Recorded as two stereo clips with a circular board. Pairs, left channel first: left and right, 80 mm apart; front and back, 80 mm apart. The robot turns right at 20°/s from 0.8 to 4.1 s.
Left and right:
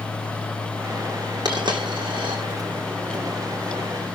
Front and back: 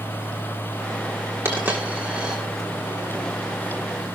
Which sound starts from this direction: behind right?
A dropped coin, at 1.4 s.